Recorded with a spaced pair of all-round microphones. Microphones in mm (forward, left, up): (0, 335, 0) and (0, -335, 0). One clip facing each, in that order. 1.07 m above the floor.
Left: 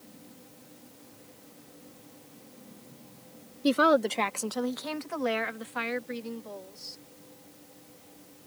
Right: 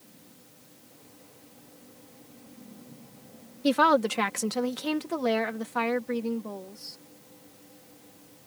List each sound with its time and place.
3.6 s a woman speaking: 20° right (ahead or behind); by 7.0 s 75° right (ahead or behind)